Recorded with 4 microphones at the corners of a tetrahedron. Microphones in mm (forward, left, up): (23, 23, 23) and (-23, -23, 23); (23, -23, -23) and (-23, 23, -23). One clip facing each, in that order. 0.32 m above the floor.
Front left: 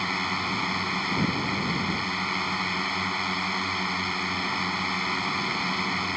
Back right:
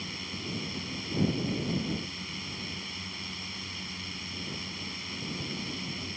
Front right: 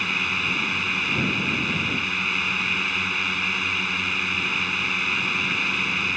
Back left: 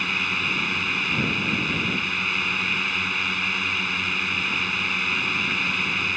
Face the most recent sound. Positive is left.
turn(degrees=45)